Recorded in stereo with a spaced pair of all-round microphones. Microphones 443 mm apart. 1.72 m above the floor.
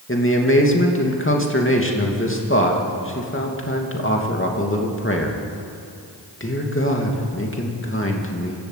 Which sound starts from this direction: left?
A man speaking, at 0.1 s.